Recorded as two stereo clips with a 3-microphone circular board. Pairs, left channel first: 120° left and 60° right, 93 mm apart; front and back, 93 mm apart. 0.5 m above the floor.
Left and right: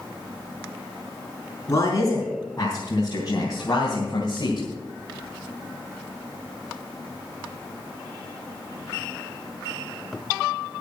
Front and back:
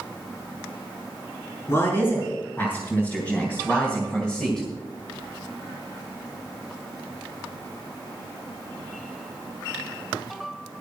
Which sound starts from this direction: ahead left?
A man speaking, at 1.7 s.